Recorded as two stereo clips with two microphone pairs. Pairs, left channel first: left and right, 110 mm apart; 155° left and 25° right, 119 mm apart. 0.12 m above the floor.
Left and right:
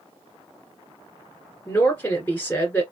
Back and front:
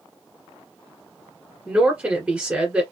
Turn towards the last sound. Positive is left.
turn(degrees=40)